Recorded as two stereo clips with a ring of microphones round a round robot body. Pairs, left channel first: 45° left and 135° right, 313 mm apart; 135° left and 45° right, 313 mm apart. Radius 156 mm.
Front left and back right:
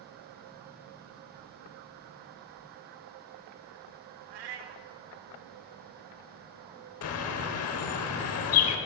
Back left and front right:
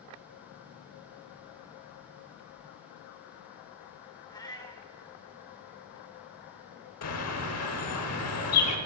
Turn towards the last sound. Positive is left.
turn(degrees=90)